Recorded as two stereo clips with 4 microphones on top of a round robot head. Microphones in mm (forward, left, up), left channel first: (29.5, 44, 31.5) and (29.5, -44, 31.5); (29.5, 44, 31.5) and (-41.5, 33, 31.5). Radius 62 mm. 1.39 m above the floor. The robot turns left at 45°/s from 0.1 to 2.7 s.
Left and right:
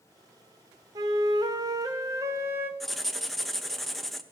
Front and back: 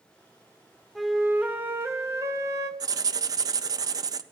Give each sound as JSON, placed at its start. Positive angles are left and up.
{"t": 0.9, "sound": "a flute", "azimuth_deg": -80, "distance_m": 0.7}
{"t": 2.8, "sound": "writing", "azimuth_deg": 180, "distance_m": 0.7}